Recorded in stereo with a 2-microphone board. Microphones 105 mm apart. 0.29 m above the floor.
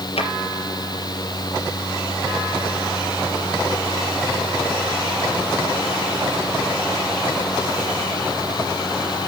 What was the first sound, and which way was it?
A drawer, 70° left (ahead or behind).